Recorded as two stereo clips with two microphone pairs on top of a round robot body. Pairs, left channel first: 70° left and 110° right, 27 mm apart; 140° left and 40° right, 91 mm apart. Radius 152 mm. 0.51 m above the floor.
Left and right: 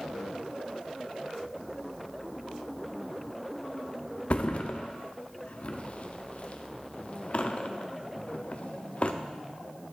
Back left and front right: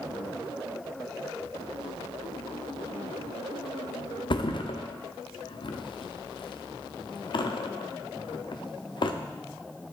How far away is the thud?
About 0.6 m.